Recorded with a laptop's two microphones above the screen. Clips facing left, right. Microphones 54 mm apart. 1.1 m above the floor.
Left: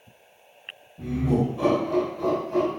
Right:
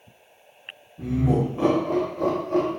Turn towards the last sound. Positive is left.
turn(degrees=-60)  # may be behind; listen again after turning